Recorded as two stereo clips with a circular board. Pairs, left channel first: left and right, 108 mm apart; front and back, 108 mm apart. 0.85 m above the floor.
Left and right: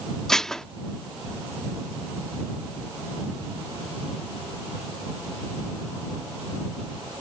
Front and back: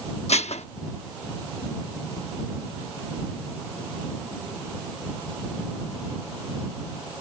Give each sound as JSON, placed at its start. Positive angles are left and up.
{"t": 0.3, "sound": "dishes clattering", "azimuth_deg": 5}